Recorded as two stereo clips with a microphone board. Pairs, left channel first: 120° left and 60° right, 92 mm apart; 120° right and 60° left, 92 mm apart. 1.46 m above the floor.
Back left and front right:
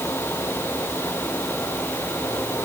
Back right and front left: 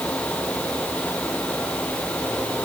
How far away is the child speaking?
I don't hear a child speaking.